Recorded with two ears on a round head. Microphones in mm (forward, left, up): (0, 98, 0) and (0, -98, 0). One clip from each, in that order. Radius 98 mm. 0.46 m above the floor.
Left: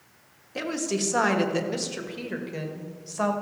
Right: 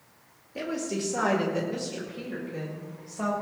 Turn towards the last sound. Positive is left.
turn(degrees=50)  # may be behind; listen again after turning